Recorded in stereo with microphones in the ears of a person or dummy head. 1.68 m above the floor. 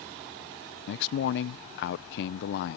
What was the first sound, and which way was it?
A man speaking, 65° left (ahead or behind).